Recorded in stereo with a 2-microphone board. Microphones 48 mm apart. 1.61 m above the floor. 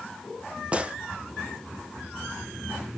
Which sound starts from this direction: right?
A gunshot, at 0.7 s.